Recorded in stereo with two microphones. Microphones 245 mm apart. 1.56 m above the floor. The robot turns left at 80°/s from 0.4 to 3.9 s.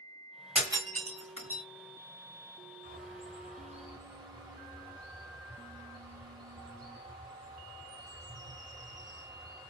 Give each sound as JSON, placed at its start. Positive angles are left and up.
{"t": 0.6, "sound": "breaking glass", "side_deg": -5, "distance_m": 2.0}
{"t": 2.8, "sound": "a bird", "azimuth_deg": -75, "distance_m": 1.5}